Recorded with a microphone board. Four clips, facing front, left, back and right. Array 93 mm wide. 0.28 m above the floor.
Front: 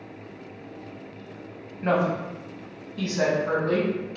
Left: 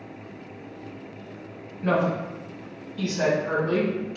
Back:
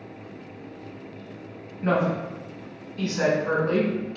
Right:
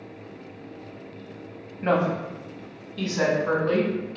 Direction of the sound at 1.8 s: 60° right.